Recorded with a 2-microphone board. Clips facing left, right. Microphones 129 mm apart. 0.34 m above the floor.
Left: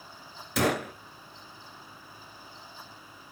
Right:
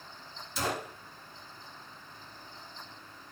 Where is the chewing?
I don't hear chewing.